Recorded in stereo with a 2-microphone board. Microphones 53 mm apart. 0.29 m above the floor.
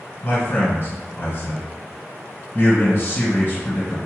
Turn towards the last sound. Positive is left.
turn(degrees=40)  # may be behind; listen again after turning